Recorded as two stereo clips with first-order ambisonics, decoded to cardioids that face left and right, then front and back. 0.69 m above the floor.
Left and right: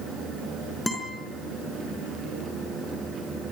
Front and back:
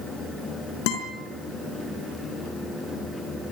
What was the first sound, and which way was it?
A guitar, straight ahead.